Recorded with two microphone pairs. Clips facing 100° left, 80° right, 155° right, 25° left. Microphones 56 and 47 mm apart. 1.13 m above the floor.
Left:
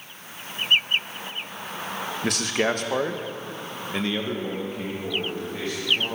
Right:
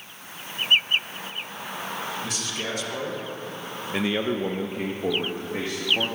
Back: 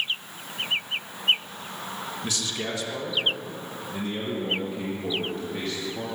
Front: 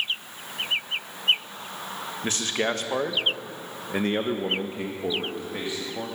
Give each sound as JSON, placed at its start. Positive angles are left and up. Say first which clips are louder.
{"t": 2.2, "sound": "a man speaking", "louder": "left 7 dB, front 7 dB", "azimuth_deg": 80, "distance_m": 1.3}